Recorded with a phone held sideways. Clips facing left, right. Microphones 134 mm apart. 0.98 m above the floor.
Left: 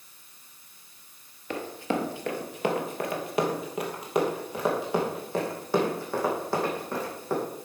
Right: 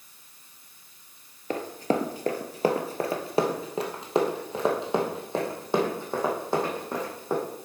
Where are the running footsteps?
40° right (ahead or behind), 1.2 m; by 7.4 s 20° right (ahead or behind), 3.5 m.